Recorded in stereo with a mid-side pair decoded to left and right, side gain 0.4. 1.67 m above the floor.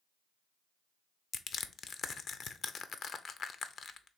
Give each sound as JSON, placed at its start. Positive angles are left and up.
{"t": 1.3, "sound": "crushing", "azimuth_deg": 55, "distance_m": 0.5}